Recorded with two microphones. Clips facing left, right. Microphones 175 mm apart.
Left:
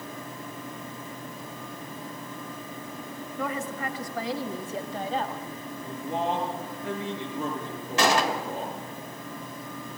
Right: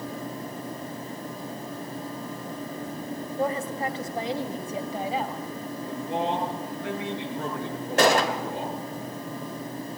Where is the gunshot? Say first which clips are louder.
Right 3 dB; 55° right (ahead or behind), 2.5 m.